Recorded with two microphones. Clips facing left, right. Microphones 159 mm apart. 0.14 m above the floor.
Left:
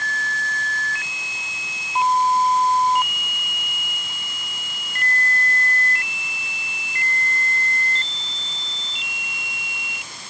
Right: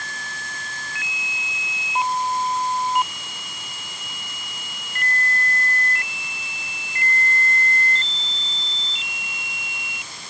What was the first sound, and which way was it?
Only background noise.